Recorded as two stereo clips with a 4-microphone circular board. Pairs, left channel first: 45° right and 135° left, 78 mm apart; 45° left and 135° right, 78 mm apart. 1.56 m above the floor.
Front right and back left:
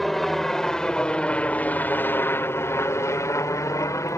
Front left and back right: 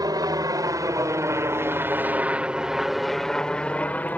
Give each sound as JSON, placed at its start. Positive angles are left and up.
{"t": 0.0, "sound": "a helicopter", "azimuth_deg": -130}